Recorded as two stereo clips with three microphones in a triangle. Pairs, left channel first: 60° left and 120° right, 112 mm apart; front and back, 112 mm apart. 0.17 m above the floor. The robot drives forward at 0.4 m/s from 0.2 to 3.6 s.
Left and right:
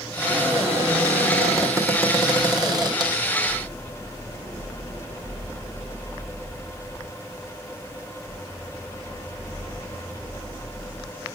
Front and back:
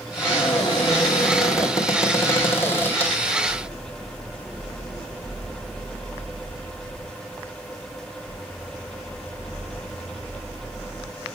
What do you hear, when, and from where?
0.2 s a cupboard door: 50° right, 3 m; by 3.2 s 70° right, 2.5 m